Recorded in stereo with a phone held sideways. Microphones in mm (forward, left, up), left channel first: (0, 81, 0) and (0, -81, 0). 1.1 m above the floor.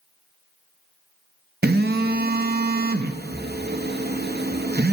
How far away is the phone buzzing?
About 0.8 m.